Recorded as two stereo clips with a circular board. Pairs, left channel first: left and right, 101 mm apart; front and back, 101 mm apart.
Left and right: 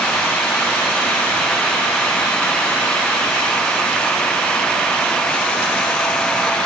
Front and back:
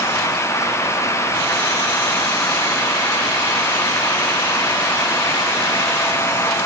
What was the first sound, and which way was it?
Only background noise.